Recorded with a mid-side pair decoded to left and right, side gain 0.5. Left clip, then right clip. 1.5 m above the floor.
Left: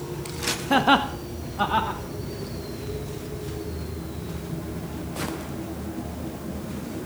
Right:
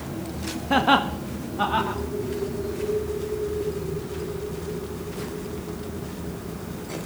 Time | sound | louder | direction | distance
0.7 | laughter | even | 10° left | 1.0 m